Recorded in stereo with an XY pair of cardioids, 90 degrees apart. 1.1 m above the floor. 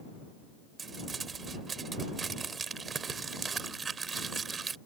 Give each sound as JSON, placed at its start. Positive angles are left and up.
{"t": 0.8, "sound": "crumpling", "azimuth_deg": -45}